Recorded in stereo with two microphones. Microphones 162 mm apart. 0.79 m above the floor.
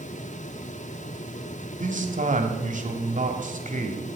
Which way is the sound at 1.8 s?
50° right (ahead or behind).